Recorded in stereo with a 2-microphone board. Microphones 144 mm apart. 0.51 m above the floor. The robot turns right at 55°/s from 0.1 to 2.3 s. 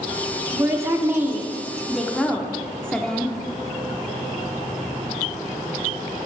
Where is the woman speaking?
20° right (ahead or behind), 0.7 m; by 3.3 s 5° left (ahead or behind), 0.7 m.